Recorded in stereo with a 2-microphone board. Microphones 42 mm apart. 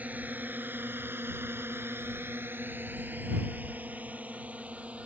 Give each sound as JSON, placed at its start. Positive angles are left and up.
{"t": 0.0, "sound": "a drone", "side_deg": -45}